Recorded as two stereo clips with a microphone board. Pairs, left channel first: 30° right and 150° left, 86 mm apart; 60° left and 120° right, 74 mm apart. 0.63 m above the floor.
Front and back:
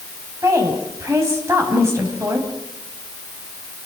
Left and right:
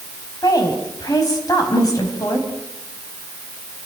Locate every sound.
0.4 s a woman speaking: 95° left, 5 m